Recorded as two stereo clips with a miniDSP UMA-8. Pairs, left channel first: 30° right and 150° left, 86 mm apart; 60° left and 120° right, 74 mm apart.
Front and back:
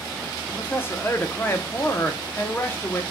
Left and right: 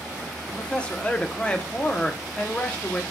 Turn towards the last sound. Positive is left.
turn(degrees=0)